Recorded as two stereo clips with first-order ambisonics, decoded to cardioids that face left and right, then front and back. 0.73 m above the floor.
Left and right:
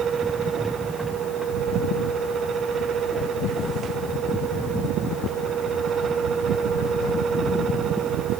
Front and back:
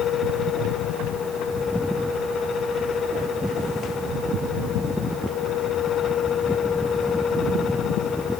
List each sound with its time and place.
Only background noise.